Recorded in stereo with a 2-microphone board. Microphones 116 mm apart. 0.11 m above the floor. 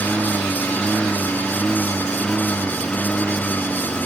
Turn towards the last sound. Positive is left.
turn(degrees=5)  # may be behind; listen again after turning